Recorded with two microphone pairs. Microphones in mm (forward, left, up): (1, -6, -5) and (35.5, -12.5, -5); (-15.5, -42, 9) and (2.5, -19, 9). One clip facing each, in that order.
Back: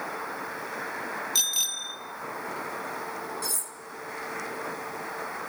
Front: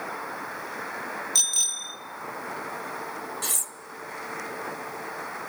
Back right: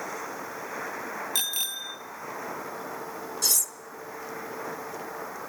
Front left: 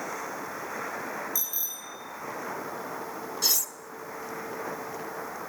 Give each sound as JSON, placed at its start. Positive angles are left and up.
{"t": 1.4, "sound": "a bicycle bell", "azimuth_deg": -115, "distance_m": 2.5}
{"t": 3.4, "sound": "cutlery clinking", "azimuth_deg": -25, "distance_m": 1.4}